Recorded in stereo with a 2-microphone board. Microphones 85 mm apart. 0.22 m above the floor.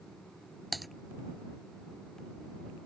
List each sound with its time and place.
0.7 s typing on a keyboard: centre (ahead or behind)